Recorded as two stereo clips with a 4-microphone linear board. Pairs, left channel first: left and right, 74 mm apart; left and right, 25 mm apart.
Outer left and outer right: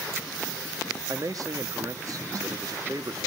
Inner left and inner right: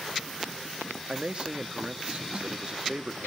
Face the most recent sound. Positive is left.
turn(degrees=-50)  # may be behind; listen again after turning